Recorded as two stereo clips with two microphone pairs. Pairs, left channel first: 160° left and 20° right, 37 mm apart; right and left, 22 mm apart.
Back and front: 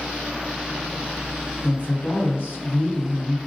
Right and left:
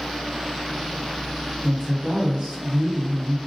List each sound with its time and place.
1.6 s a woman speaking: 130° left, 1.3 m